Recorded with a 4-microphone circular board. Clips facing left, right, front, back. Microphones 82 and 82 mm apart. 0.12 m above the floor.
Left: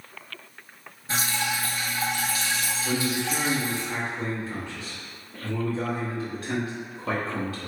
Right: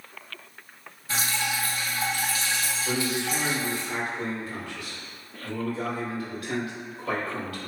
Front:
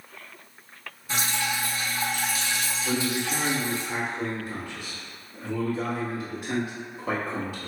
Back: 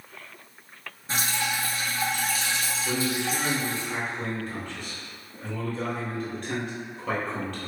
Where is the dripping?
140° left, 1.7 m.